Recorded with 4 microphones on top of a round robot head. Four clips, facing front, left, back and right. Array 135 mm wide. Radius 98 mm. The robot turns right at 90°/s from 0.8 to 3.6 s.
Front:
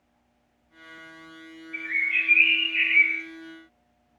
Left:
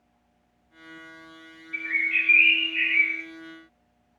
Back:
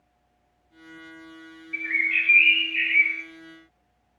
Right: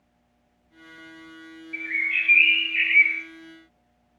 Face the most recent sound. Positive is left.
turn(degrees=-35)